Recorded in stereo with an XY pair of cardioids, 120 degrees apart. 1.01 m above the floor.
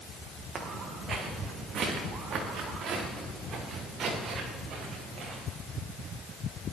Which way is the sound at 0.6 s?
40° right.